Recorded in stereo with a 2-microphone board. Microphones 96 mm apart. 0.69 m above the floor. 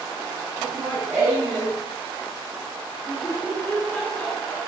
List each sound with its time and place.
0.6 s laughter: 25° right (ahead or behind), 7 m; by 4.6 s 5° left (ahead or behind), 9 m